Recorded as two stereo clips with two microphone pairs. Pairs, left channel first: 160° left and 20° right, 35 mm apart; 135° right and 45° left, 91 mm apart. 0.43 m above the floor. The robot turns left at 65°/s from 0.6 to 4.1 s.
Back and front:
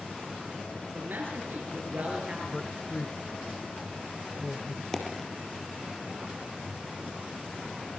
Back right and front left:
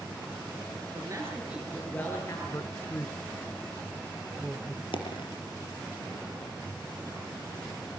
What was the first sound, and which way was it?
A man speaking, 5° left.